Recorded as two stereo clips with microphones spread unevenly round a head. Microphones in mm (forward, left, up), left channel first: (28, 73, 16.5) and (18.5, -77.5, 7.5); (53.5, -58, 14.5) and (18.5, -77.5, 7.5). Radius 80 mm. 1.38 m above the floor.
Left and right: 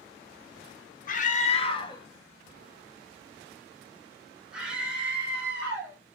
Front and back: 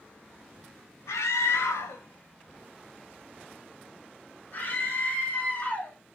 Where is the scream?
55° left, 0.9 m; by 6.0 s 15° right, 3 m.